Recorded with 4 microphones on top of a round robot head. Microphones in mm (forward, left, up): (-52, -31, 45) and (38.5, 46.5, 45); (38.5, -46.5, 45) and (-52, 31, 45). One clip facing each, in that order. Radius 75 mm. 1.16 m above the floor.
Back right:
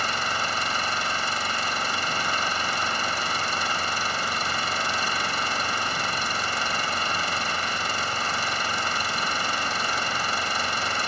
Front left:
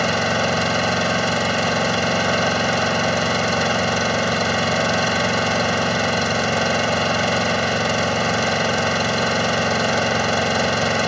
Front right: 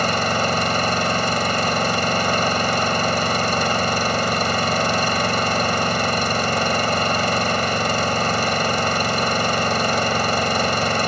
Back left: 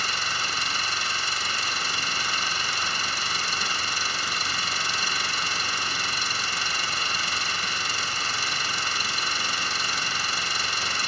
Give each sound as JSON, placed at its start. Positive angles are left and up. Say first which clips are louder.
{"t": 0.0, "sound": "an engine running", "louder": "front left 9 dB, front right 12 dB", "azimuth_deg": 10}